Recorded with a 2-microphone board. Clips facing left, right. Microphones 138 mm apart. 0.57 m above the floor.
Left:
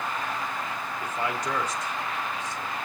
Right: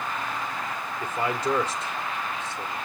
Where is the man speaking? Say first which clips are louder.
Right 4 dB; 30° right (ahead or behind), 1.7 m.